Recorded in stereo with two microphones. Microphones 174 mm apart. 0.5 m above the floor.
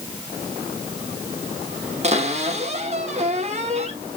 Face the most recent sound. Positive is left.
turn(degrees=-40)  # may be behind; listen again after turning